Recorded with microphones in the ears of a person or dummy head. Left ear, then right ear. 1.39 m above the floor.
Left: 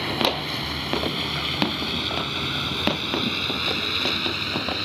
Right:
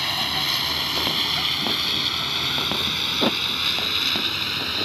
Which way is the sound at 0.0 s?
40° right (ahead or behind).